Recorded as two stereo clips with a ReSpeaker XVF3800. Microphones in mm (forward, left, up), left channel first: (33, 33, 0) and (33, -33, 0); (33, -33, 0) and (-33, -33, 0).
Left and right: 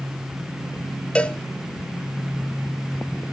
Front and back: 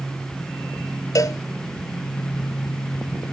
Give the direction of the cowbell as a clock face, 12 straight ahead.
11 o'clock.